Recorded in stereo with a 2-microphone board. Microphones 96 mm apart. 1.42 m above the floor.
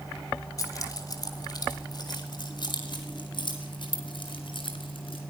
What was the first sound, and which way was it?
Keys jangling, 35° left (ahead or behind).